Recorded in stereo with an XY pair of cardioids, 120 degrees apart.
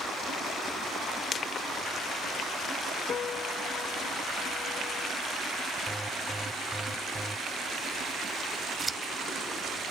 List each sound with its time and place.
1.3 s crushing: 45° left
3.1 s a piano: 50° left
5.9 s an alarm: 5° right
8.8 s scissors: 20° right